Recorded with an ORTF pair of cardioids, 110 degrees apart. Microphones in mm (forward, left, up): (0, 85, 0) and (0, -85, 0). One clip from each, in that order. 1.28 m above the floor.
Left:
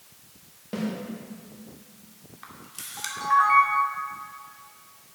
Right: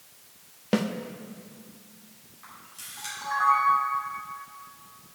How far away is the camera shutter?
About 2 m.